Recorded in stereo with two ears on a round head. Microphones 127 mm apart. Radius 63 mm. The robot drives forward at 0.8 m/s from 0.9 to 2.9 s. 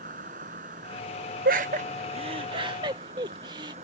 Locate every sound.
0.0 s an insect: 60° right (ahead or behind); by 3.8 s 50° right (ahead or behind)
1.4 s laughter: 65° right (ahead or behind); by 3.7 s 30° right (ahead or behind)